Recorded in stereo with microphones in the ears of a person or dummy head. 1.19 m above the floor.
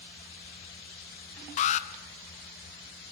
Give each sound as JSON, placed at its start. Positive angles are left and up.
{"t": 1.6, "sound": "an alarm", "side_deg": 35, "distance_m": 1.3}